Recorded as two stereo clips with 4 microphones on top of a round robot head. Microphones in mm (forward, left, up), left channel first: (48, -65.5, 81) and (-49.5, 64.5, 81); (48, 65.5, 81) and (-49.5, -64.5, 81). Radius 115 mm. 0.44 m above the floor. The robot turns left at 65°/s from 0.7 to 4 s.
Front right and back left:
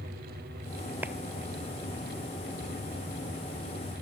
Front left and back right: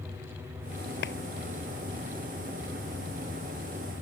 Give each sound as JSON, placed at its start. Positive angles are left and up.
{"t": 1.0, "sound": "a clap", "azimuth_deg": 50}